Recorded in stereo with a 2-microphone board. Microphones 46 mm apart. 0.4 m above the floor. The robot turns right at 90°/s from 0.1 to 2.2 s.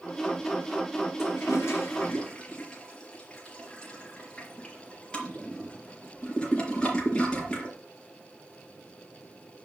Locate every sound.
1.2 s a toilet flushing: 70° left (ahead or behind), 4.5 m; by 7.8 s 15° left (ahead or behind), 4.5 m